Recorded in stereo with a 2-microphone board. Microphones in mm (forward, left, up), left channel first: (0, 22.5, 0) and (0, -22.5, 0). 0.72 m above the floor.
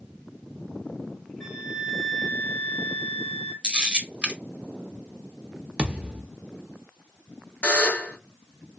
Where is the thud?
20° right (ahead or behind), 0.7 m.